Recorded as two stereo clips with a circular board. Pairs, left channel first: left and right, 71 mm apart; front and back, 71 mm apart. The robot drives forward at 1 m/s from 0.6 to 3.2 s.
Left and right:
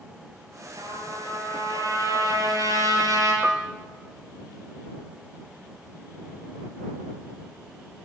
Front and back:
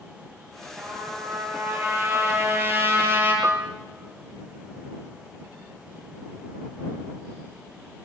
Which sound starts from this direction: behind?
A piano, at 3.4 s.